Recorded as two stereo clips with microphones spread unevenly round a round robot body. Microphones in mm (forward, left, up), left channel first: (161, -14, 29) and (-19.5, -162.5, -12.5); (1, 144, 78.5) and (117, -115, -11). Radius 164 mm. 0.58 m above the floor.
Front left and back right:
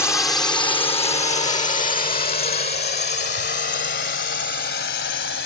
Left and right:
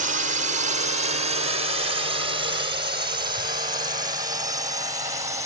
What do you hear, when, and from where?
0.0 s a drone: 45° right; by 5.5 s 5° left